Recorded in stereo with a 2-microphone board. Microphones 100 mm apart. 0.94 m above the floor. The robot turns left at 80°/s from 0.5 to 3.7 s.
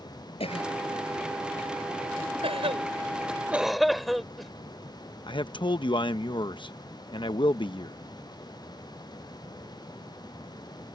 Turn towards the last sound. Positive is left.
turn(degrees=55)  # may be behind; listen again after turning